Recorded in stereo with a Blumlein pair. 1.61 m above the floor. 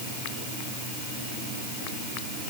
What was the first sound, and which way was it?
Only background noise.